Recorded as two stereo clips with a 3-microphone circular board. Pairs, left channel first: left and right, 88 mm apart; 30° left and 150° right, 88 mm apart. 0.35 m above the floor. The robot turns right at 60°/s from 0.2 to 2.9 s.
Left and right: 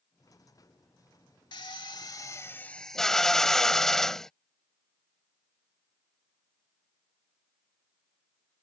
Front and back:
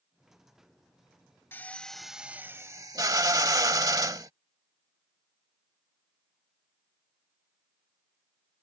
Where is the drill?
90° left; by 4.3 s 175° left.